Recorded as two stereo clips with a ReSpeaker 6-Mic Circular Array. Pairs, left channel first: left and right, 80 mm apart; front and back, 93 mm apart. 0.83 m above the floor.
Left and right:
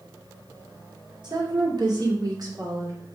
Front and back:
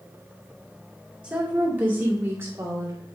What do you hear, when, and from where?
1.2 s a woman speaking: 105° right, 2.5 m; by 3.1 s 130° right, 2 m